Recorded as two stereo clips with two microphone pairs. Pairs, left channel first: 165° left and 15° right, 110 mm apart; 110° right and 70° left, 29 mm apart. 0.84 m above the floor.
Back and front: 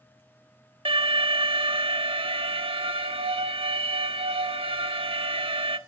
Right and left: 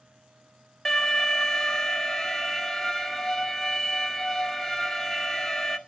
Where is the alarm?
35° right, 1.5 m.